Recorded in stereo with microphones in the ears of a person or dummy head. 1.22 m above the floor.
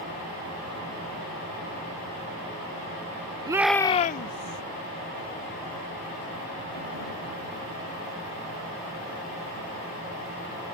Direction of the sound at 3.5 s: 25° right (ahead or behind).